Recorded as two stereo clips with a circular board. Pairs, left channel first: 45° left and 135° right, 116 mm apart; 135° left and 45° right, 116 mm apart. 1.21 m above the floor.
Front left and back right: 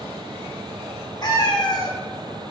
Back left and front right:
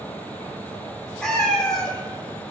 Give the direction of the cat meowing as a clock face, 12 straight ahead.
10 o'clock.